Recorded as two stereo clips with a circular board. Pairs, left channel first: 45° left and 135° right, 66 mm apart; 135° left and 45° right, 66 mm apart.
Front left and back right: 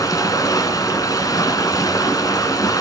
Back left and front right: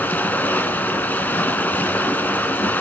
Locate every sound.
0.0 s running water: 70° left, 2.5 m